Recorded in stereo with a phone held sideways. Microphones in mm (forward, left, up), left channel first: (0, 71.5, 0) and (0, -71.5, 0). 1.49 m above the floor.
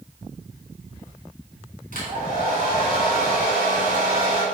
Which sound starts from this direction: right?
A hair dryer, at 1.9 s.